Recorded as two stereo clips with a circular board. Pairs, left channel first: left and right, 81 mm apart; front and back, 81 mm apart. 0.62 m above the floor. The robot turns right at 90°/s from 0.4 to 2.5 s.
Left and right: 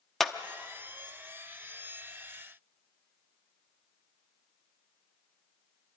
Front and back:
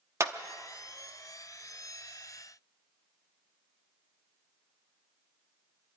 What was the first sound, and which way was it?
A clap, 175° left.